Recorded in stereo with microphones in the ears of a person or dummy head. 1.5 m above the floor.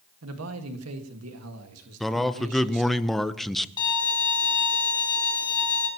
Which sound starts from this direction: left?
A violin, at 3.8 s.